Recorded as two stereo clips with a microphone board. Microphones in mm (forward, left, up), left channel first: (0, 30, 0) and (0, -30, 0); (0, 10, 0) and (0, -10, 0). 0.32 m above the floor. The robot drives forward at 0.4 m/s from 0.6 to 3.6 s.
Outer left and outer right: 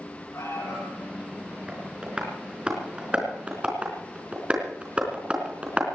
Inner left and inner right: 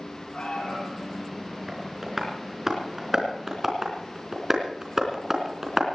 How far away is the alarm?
About 9.5 m.